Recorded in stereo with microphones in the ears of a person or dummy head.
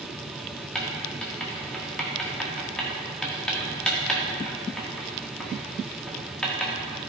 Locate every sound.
0.8 s writing: centre (ahead or behind), 1.5 m